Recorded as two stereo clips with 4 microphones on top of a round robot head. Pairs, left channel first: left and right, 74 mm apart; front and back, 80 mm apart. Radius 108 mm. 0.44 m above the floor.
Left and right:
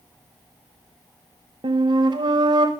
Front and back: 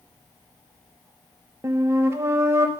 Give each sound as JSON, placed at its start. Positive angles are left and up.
{"t": 1.6, "sound": "a flute", "azimuth_deg": -120, "distance_m": 0.6}